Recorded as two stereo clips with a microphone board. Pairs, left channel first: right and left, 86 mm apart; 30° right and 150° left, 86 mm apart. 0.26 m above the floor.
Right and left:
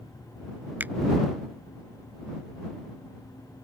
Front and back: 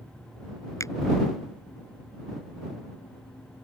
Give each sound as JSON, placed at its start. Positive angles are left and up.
{"t": 0.8, "sound": "a finger snap", "azimuth_deg": 20}